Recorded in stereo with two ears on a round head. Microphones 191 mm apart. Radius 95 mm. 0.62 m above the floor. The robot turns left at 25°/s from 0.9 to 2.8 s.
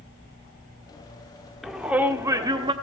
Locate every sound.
1.6 s a shout: centre (ahead or behind), 1.3 m; by 2.7 s 25° right (ahead or behind), 1.3 m